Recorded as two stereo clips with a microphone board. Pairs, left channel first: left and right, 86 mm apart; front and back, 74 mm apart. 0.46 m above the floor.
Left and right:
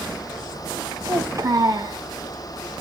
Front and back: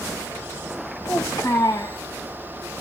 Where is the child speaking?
40° right, 2 m.